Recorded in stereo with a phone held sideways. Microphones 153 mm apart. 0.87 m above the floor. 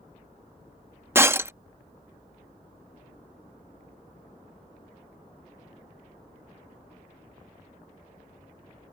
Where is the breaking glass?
15° right (ahead or behind).